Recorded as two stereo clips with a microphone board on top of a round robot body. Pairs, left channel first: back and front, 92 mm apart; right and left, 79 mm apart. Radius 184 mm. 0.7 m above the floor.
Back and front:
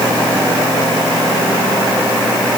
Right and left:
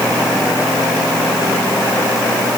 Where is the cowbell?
No cowbell in this recording.